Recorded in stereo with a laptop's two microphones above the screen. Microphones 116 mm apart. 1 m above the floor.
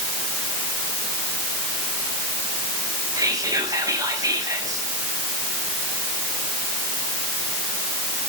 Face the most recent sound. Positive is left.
turn(degrees=-30)  # may be behind; listen again after turning